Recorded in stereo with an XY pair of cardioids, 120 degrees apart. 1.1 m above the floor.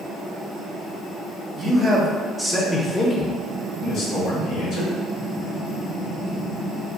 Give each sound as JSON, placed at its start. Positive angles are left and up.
{"t": 1.6, "sound": "a man speaking", "azimuth_deg": -25, "distance_m": 1.0}